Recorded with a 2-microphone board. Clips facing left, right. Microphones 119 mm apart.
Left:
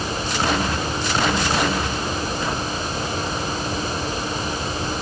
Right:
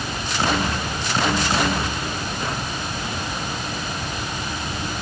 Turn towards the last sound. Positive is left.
No sound to turn to.